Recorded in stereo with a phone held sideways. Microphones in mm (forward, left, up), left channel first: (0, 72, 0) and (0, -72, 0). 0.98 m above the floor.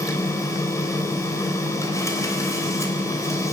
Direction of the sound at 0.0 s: 20° left (ahead or behind).